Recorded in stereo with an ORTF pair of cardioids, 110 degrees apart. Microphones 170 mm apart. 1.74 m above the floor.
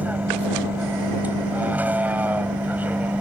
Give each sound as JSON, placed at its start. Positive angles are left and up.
{"t": 0.0, "sound": "a vehicle", "azimuth_deg": -10}